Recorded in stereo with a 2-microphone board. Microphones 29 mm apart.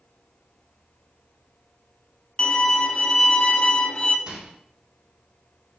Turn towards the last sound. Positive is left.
turn(degrees=-40)  # may be behind; listen again after turning